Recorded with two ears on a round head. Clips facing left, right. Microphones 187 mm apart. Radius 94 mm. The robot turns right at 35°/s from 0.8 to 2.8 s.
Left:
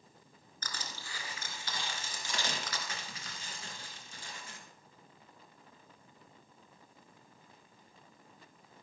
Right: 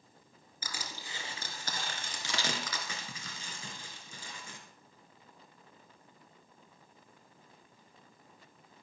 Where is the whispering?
No whispering in this recording.